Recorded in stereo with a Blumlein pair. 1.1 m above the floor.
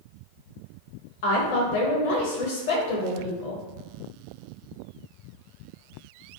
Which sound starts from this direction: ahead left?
A woman speaking, at 1.2 s.